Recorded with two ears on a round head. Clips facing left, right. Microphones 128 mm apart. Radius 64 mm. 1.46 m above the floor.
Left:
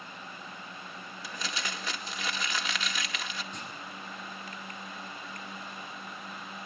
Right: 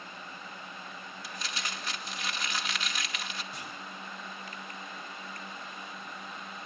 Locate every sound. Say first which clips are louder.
1.2 s crumpling: left 3 dB; 65° left (ahead or behind), 2 m
3.5 s a clunk: left 1 dB; 10° right (ahead or behind), 7.5 m